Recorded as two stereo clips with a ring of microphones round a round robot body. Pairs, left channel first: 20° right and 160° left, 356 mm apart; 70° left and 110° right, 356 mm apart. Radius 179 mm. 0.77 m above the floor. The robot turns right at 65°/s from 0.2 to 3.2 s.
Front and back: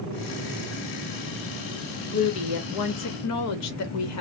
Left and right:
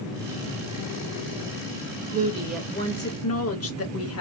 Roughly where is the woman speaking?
Ahead right.